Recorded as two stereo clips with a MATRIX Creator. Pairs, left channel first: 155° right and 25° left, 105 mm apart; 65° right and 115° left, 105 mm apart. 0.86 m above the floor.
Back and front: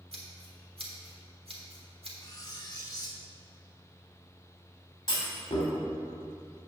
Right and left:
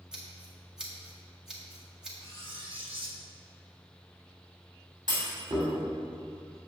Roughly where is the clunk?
Behind.